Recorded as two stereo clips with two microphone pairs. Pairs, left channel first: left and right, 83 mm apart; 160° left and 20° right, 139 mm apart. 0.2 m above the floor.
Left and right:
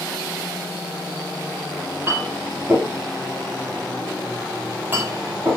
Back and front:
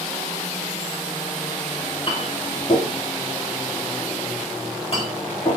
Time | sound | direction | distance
2.1 | a clink | 155° right | 4 m